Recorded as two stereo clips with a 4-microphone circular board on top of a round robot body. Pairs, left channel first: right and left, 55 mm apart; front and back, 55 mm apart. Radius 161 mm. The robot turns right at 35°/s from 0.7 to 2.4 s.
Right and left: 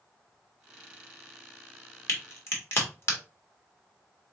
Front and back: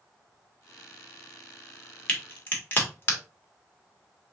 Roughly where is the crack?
Ahead right.